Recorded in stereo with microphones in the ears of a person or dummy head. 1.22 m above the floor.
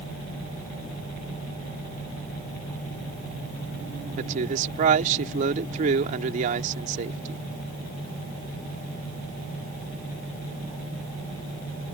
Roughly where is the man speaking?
Right.